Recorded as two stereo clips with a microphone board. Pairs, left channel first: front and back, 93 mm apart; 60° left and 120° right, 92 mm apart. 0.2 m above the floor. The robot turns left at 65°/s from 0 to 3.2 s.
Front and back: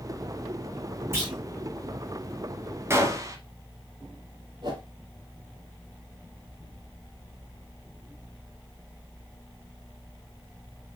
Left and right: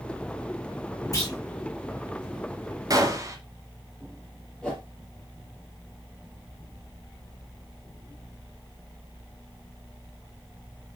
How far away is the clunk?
About 2.5 m.